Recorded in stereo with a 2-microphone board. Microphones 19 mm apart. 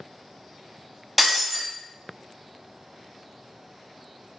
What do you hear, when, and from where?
1.2 s breaking glass: 10° right (ahead or behind), 0.6 m